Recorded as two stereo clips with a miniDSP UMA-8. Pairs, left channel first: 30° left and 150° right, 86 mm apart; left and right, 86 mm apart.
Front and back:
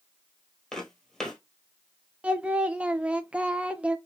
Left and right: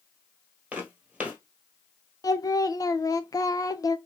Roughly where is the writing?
No writing in this recording.